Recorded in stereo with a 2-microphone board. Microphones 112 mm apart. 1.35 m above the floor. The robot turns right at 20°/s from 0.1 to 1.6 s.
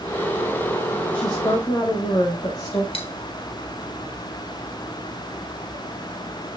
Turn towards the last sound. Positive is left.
turn(degrees=55)  # may be behind; listen again after turning